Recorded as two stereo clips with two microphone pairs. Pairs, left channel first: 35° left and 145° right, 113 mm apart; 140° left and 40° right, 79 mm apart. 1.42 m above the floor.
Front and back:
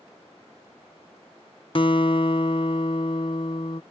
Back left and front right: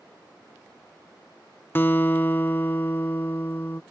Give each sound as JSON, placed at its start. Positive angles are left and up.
{"t": 1.8, "sound": "a guitar", "azimuth_deg": 70}